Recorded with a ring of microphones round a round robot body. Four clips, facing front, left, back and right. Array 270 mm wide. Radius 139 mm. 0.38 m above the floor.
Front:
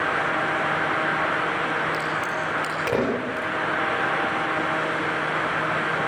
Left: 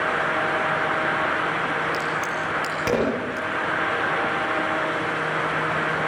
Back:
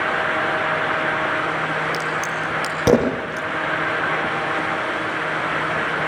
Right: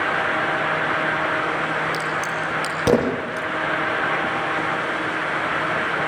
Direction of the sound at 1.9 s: 155° right.